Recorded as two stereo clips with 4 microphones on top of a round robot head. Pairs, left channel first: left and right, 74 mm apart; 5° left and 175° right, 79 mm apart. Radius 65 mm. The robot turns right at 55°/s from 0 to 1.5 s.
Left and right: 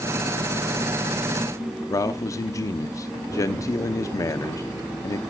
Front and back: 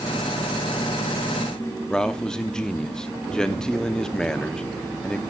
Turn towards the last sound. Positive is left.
turn(degrees=85)